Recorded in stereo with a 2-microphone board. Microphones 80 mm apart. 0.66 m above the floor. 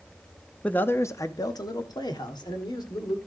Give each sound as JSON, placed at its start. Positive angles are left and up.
{"t": 0.6, "sound": "a man speaking", "side_deg": 15, "distance_m": 0.6}